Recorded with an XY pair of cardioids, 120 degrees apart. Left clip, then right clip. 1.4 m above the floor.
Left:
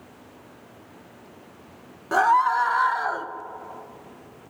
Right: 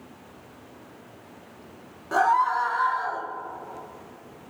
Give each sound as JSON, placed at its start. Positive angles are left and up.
{"t": 2.1, "sound": "a scream", "azimuth_deg": 25, "distance_m": 1.5}